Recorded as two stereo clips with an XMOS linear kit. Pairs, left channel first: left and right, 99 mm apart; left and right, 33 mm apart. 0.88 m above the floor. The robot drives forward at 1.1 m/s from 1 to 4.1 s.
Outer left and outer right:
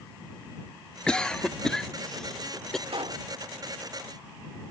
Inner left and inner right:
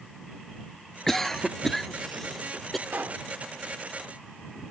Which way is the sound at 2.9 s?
70° right (ahead or behind).